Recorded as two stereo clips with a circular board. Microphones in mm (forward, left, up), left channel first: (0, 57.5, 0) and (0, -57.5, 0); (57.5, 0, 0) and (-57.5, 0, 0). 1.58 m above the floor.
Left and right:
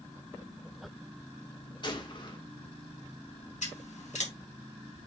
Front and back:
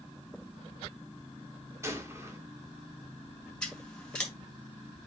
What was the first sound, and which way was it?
A gunshot, 120° left.